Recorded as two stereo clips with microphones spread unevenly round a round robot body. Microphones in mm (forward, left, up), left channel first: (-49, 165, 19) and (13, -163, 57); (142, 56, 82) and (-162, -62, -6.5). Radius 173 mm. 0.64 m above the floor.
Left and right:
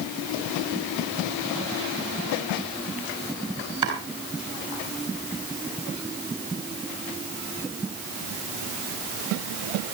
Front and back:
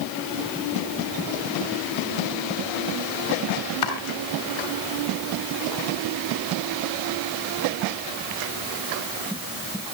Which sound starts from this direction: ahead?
Chopping, at 3.8 s.